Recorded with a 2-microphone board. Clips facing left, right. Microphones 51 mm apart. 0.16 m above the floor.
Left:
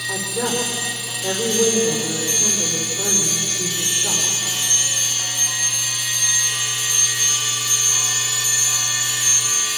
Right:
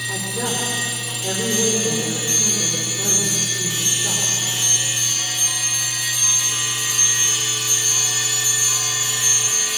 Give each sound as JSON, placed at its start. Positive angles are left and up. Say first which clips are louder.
{"t": 0.1, "sound": "a woman speaking", "louder": "left 5 dB", "side_deg": 10, "distance_m": 6.5}